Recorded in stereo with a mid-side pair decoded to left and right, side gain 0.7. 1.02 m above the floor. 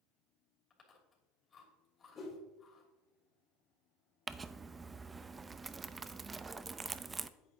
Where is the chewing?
30° left, 3 m.